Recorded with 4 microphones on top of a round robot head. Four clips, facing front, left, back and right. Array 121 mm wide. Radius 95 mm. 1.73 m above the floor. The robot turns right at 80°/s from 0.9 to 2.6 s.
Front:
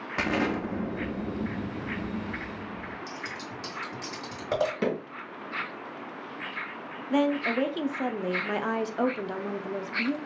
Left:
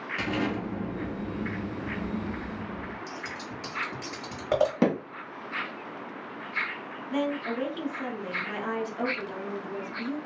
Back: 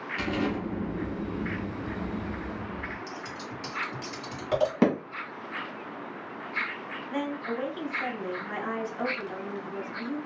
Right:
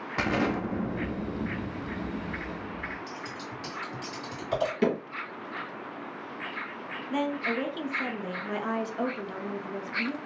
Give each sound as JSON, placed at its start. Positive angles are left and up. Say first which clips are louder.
{"t": 0.2, "sound": "an explosion", "louder": "right 3 dB, front 2 dB", "azimuth_deg": -45, "distance_m": 0.8}
{"t": 3.1, "sound": "scissors", "louder": "left 1 dB, even", "azimuth_deg": 60, "distance_m": 1.6}
{"t": 4.8, "sound": "hammering", "louder": "right 2 dB, back 5 dB", "azimuth_deg": 145, "distance_m": 1.1}
{"t": 7.1, "sound": "a woman speaking", "louder": "even, front 7 dB", "azimuth_deg": 0, "distance_m": 0.6}